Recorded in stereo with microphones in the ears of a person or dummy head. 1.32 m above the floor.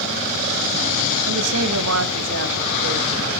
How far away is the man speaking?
About 0.9 m.